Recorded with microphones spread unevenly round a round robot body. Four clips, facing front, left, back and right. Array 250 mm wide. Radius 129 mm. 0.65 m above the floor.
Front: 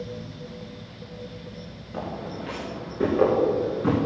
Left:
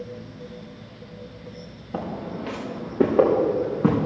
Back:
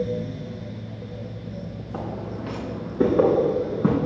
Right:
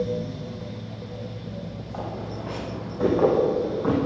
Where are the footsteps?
110° left, 5.5 m; by 4.0 s 125° left, 5.5 m.